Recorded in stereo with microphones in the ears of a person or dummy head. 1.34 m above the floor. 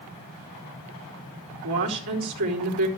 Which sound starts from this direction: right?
A woman speaking, at 1.6 s.